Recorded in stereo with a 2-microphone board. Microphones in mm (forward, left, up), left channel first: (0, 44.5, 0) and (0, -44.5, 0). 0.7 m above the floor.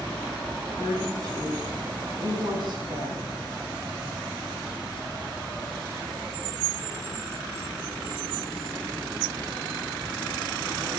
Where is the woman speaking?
35° right (ahead or behind), 8 m; by 3.3 s 60° right (ahead or behind), 6 m.